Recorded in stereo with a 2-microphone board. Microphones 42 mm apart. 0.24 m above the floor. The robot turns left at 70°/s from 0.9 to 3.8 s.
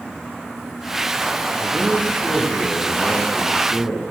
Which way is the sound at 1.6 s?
165° right.